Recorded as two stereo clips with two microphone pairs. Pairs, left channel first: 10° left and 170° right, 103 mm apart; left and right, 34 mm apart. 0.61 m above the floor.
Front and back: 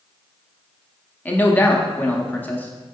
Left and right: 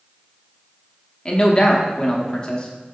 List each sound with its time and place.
1.2 s a man speaking: 70° left, 0.6 m